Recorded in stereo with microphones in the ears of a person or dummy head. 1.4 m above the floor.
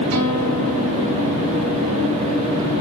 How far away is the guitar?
About 2 m.